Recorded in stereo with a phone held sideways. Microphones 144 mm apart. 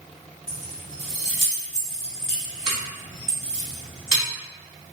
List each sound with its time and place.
0.5 s keys jangling: 35° right (ahead or behind), 1.4 m